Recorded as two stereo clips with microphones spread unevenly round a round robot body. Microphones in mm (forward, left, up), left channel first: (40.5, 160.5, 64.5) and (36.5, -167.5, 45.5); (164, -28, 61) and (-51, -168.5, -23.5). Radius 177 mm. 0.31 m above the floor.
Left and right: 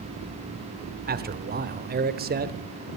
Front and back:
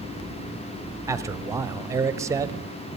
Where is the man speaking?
115° right, 1.0 m.